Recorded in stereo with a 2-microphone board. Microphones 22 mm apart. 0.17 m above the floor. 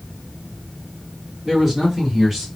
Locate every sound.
1.4 s a man speaking: 20° right (ahead or behind), 1.7 m